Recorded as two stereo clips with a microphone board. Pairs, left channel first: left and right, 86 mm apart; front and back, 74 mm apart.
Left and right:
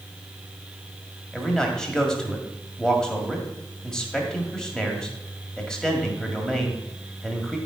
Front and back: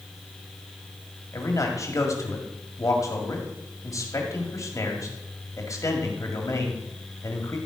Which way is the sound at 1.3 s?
10° left.